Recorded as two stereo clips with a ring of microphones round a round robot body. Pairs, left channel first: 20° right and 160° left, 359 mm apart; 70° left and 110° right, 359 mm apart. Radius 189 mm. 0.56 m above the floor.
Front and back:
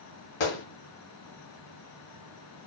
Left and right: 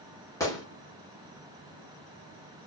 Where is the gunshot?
15° right, 2.5 m.